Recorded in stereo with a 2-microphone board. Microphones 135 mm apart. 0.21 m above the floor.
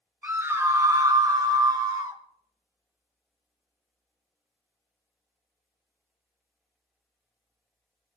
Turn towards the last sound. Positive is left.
turn(degrees=-25)  # may be behind; listen again after turning